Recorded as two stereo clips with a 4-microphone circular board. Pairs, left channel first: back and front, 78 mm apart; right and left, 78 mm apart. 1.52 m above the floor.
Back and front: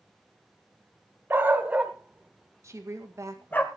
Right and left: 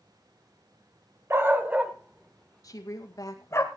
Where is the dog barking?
50° left, 1.6 m; by 3.6 s 120° right, 1.7 m.